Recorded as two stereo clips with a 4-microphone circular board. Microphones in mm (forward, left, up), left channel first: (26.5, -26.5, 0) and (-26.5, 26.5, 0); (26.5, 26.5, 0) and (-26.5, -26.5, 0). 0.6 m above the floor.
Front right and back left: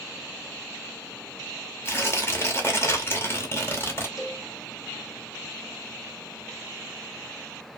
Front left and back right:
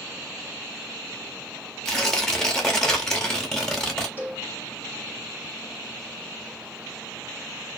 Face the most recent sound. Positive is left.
turn(degrees=-75)